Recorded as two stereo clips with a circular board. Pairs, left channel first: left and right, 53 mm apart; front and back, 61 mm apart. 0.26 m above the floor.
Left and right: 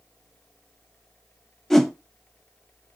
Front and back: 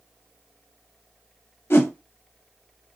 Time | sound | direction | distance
1.7 | a whoosh | 10° left | 0.6 m